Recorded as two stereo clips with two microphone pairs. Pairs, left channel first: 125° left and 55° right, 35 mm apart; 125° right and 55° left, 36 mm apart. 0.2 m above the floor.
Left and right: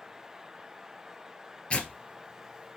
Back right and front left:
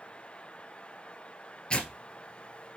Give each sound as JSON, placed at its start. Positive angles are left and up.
{"t": 1.7, "sound": "tearing paper", "azimuth_deg": 175, "distance_m": 1.4}